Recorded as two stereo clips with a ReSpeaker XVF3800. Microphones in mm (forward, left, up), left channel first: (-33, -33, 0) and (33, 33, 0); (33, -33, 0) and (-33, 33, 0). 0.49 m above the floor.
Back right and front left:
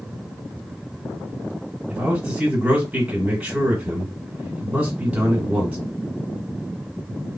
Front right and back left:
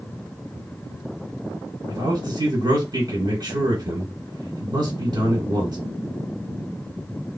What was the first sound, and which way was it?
A man speaking, 120° left.